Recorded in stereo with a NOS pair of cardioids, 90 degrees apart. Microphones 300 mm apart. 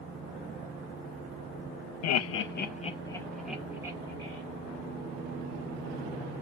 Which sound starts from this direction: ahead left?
Laughter, at 2.0 s.